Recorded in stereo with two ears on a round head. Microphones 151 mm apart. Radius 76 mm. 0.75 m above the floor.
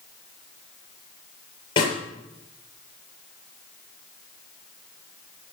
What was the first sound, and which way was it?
A snare drum, 30° left (ahead or behind).